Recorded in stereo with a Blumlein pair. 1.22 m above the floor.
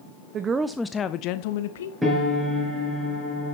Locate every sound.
0.3 s a woman speaking: 30° right, 0.7 m; by 1.9 s 60° left, 1.0 m
2.0 s a piano: 5° right, 4.5 m